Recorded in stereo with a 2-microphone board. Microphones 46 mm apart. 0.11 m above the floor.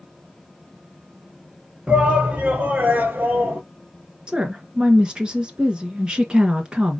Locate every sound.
1.9 s a shout: 20° right (ahead or behind), 1.9 m; by 3.6 s 45° right (ahead or behind), 1.7 m
4.3 s a woman speaking: 20° right (ahead or behind), 1.3 m